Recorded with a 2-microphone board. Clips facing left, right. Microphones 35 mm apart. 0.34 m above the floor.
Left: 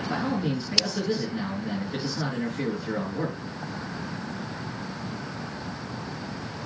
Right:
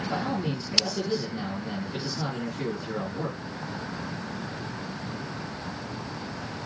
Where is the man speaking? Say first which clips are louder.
Left 3 dB; 45° left (ahead or behind), 4.5 m.